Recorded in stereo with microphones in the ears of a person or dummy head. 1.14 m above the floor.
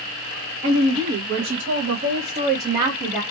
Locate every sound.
0.6 s a woman speaking: 85° right, 1.3 m; by 3.2 s 10° right (ahead or behind), 0.7 m